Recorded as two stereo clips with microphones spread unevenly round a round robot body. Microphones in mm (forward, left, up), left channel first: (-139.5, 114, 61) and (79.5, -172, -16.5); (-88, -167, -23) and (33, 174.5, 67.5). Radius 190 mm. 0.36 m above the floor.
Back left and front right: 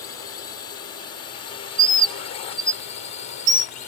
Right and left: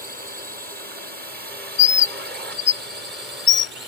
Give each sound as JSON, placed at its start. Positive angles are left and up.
{"t": 0.0, "sound": "a drone", "azimuth_deg": 140}
{"t": 1.8, "sound": "a bird", "azimuth_deg": -95}